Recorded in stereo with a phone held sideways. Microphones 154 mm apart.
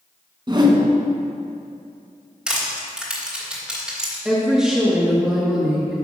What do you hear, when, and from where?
0.5 s a whoosh: 30° right (ahead or behind), 1.0 m
2.5 s crushing: 5° right (ahead or behind), 2.5 m
4.2 s a woman speaking: 5° right (ahead or behind), 1.5 m